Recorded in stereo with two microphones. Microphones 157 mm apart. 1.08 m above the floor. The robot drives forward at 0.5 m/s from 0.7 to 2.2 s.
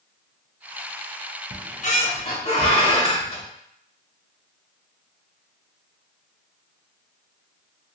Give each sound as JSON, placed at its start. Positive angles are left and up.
{"t": 1.5, "sound": "a squeak", "side_deg": 65, "distance_m": 0.5}